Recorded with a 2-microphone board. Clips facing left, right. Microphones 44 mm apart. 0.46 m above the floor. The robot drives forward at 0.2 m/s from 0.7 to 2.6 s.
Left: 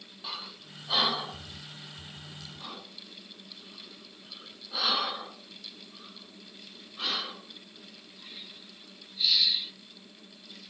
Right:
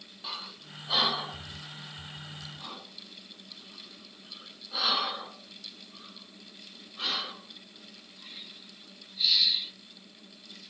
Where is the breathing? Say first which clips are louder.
Even; centre (ahead or behind), 0.6 m.